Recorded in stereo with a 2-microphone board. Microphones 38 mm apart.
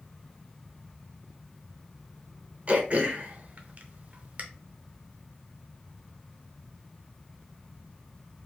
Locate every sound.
2.7 s throat clearing: 40° right (ahead or behind), 0.6 m